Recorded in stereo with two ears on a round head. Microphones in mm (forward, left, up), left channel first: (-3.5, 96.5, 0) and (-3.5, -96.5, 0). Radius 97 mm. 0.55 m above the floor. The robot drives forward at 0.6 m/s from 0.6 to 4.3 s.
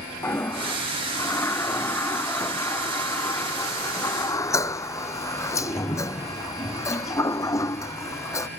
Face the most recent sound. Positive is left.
turn(degrees=15)  # may be behind; listen again after turning